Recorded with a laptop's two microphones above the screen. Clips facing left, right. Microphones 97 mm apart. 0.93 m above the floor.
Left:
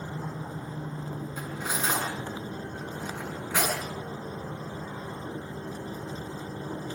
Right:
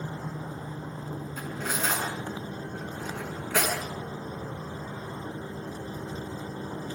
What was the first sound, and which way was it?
Cutlery clinking, 15° left (ahead or behind).